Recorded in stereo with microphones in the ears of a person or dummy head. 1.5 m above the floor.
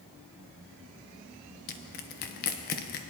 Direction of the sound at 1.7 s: 45° left (ahead or behind).